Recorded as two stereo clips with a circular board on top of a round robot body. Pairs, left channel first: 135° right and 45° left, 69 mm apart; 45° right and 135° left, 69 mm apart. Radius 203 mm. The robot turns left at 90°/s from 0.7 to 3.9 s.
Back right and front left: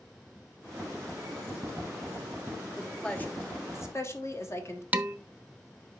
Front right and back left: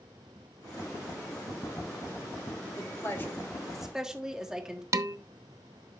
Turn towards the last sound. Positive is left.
turn(degrees=105)